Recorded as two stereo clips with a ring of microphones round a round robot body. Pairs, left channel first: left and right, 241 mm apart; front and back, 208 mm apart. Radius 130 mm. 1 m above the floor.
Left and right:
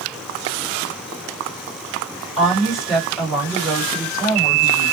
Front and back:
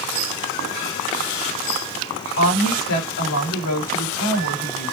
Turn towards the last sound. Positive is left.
turn(degrees=0)